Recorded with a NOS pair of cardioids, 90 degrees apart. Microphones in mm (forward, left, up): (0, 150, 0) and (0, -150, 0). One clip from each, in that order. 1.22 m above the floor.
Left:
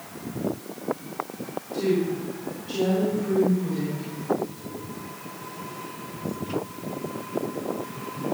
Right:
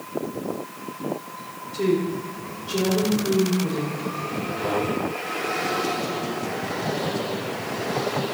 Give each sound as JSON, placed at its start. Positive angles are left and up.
{"t": 1.7, "sound": "a woman speaking", "azimuth_deg": -55, "distance_m": 4.0}